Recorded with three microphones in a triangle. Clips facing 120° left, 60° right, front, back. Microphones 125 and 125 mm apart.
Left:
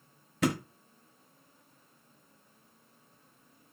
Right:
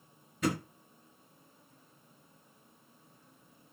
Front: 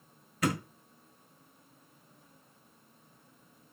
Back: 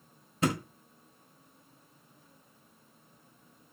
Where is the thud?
120° left, 0.6 m.